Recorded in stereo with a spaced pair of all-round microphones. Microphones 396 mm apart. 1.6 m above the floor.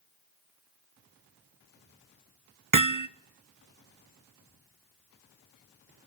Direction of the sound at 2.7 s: 50° right (ahead or behind).